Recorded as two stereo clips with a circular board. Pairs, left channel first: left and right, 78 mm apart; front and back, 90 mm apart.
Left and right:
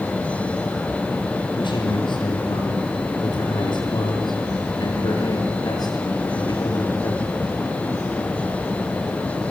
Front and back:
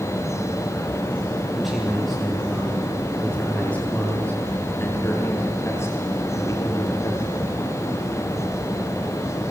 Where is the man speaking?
90° left, 9.5 m; by 7.4 s 50° left, 8.5 m.